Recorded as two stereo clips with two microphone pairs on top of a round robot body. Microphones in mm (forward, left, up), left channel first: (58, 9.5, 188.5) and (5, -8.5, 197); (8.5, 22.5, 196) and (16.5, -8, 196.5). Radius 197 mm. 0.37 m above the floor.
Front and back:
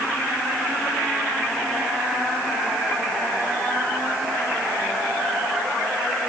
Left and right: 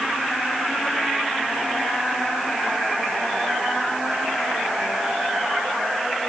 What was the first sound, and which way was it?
Only background noise.